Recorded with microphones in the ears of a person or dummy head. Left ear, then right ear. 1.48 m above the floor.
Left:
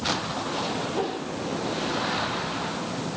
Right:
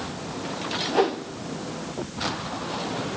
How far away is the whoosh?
About 0.8 m.